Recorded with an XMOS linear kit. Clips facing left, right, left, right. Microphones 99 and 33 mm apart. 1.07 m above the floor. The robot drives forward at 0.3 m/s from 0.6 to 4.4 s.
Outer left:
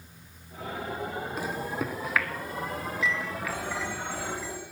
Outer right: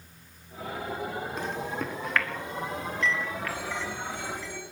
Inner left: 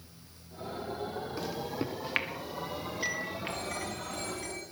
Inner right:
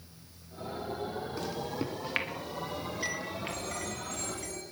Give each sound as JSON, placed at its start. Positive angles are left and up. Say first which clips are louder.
{"t": 1.4, "sound": "a microwave", "louder": "outer left 2 dB, even", "side_deg": 10, "distance_m": 1.6}
{"t": 3.5, "sound": "a phone ringing", "louder": "outer left 1 dB, inner left 1 dB", "side_deg": 35, "distance_m": 6.5}